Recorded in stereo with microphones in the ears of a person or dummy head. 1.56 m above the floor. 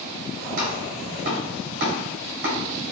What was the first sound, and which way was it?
Chopping, 35° right (ahead or behind).